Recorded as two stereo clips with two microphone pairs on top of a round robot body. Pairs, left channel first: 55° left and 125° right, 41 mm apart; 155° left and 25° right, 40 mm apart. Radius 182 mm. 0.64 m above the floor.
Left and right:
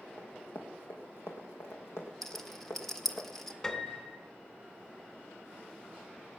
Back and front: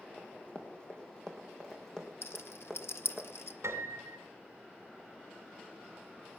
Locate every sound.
0.2 s running footsteps: 95° left, 2.0 m; by 3.2 s 60° left, 3 m
2.2 s a rattle: 140° left, 1.4 m
3.6 s a piano: 15° right, 1.9 m